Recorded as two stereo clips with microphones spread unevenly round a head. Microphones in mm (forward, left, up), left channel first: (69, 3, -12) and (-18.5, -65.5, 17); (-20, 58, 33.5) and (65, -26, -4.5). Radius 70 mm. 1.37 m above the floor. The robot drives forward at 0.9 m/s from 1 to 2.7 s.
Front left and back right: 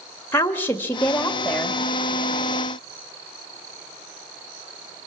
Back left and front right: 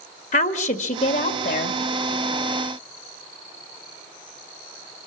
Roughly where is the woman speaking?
Behind left.